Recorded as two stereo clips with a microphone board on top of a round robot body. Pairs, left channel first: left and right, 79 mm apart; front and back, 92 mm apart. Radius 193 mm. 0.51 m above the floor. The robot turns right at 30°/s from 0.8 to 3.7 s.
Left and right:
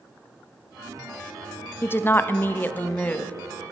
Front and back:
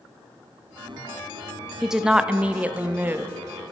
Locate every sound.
1.8 s a woman speaking: 95° left, 0.8 m; by 3.3 s 145° left, 0.8 m